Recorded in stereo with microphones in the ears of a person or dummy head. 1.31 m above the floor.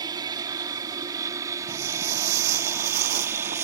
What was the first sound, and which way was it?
An aircraft, 20° right (ahead or behind).